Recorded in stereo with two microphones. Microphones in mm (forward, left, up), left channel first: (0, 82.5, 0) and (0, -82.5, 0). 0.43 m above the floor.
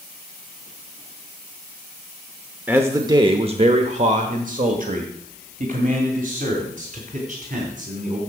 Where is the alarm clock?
I don't hear an alarm clock.